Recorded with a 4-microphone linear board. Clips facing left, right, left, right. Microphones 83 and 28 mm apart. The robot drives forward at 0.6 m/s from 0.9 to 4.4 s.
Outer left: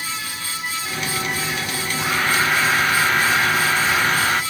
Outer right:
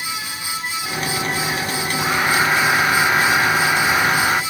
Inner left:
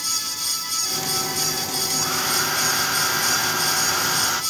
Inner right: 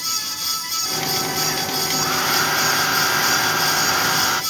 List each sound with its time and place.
2.0 s a hair dryer: 10° right (ahead or behind)